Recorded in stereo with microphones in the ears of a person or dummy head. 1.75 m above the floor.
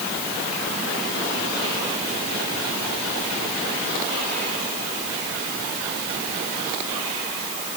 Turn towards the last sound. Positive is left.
No sound to turn to.